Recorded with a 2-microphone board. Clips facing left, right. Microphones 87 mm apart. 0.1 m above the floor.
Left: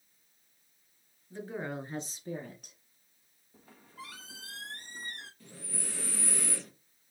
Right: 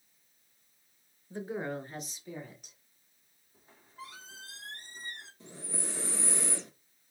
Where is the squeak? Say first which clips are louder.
Even; 85° left, 1.5 m.